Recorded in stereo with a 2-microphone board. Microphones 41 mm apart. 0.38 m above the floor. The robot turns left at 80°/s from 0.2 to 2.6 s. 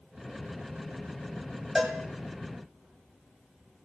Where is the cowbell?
10° right (ahead or behind), 1.2 m; by 2.0 s 5° left (ahead or behind), 1.2 m.